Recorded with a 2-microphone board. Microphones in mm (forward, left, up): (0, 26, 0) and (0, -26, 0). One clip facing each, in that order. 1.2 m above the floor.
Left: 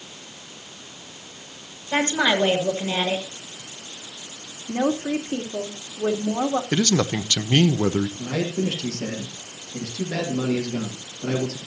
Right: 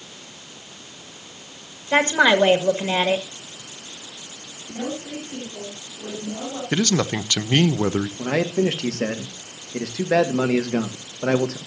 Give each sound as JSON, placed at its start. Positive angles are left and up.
{"t": 1.9, "sound": "a woman speaking", "side_deg": -45, "distance_m": 1.9}
{"t": 4.7, "sound": "a woman speaking", "side_deg": 75, "distance_m": 3.0}
{"t": 6.7, "sound": "a man speaking", "side_deg": -20, "distance_m": 0.7}
{"t": 8.2, "sound": "a man speaking", "side_deg": -75, "distance_m": 1.6}